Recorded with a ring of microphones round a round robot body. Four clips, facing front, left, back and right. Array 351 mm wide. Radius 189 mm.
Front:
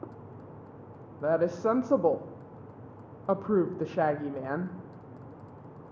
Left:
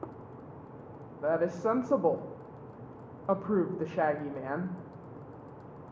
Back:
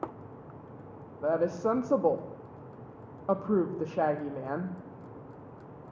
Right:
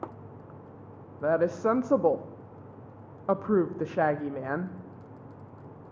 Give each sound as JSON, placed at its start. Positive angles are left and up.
{"t": 1.2, "sound": "a woman speaking", "azimuth_deg": -70, "distance_m": 0.7}